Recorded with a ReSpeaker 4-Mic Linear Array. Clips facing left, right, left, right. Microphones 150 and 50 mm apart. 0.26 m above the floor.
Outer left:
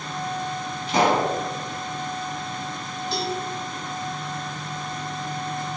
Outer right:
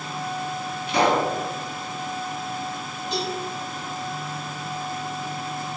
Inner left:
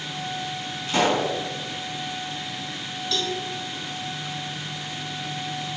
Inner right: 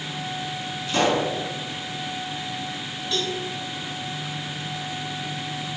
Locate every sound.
0.9 s a pop: 40° left (ahead or behind), 1.9 m
3.1 s a cowbell: 15° right (ahead or behind), 1.1 m